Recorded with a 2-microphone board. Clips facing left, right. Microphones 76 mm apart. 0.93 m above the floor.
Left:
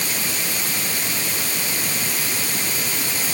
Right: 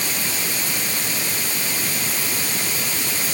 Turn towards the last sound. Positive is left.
No sound to turn to.